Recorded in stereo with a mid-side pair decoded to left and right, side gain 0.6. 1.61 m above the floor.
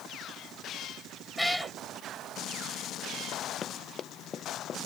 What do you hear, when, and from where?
1.4 s a cat meowing: straight ahead
3.6 s running footsteps: 35° left